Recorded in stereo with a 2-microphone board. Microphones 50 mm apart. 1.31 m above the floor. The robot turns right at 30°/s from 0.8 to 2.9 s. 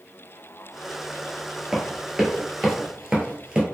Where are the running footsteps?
10° right (ahead or behind), 1.4 m; by 3.6 s 15° right (ahead or behind), 1.3 m.